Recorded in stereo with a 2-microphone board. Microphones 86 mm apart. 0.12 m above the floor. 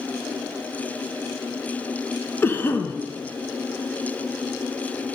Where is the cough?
25° left (ahead or behind), 1.1 m.